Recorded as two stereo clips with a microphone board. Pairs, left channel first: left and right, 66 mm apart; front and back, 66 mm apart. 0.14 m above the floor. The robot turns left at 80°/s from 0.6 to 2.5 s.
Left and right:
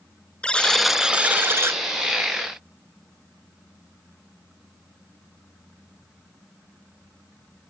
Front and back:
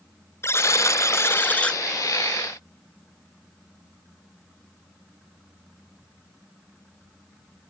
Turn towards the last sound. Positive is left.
turn(degrees=-130)